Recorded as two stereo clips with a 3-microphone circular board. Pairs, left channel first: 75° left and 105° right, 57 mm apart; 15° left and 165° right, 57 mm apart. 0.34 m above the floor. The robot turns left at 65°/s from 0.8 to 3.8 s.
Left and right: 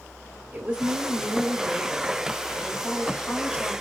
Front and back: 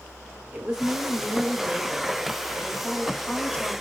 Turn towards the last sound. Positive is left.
turn(degrees=35)